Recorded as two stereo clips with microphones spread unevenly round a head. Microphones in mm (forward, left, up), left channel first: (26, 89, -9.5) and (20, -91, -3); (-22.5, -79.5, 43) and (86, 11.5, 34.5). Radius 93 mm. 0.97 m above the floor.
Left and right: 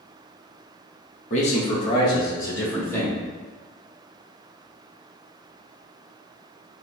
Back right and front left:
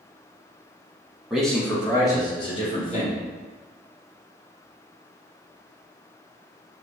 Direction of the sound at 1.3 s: 120° left.